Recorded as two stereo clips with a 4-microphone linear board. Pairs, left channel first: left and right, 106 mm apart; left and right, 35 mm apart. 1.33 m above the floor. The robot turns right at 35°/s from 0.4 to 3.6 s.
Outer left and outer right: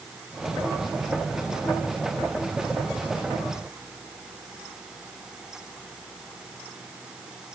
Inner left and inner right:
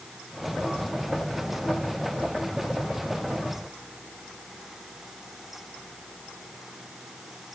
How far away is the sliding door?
No sliding door in this recording.